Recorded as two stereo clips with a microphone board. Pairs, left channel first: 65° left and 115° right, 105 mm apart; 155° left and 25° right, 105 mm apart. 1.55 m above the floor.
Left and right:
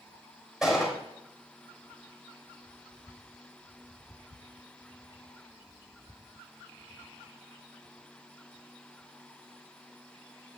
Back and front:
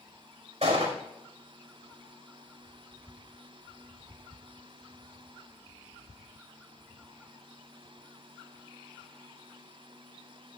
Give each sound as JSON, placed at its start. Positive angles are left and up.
{"t": 0.6, "sound": "a gunshot", "azimuth_deg": -30, "distance_m": 5.0}